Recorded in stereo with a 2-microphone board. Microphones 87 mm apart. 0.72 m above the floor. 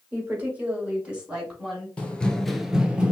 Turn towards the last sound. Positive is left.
turn(degrees=-15)  # may be behind; listen again after turning